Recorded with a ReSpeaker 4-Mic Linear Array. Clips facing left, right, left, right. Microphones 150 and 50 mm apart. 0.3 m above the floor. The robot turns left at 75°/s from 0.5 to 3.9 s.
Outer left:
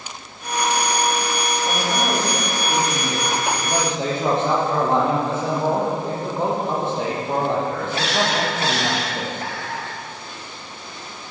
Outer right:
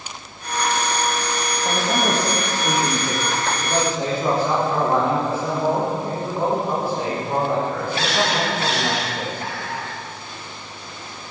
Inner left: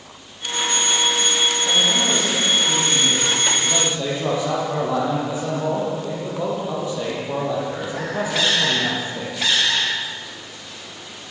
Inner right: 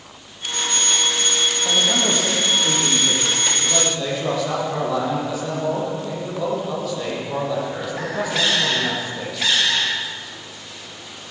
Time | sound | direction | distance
1.6 | a man speaking | 35° right | 8.5 m